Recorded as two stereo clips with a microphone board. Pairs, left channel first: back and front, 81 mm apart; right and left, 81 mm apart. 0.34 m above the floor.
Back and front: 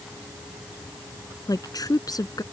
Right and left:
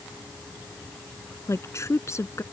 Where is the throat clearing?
No throat clearing in this recording.